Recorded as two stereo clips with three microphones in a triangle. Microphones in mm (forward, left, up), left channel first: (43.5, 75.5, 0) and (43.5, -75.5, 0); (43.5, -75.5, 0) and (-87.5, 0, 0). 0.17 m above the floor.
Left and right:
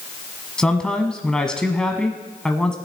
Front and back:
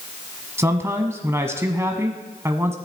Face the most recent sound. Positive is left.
turn(degrees=160)